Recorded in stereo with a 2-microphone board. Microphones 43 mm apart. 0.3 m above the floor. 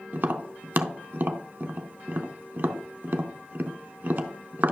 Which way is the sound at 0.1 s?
50° right (ahead or behind).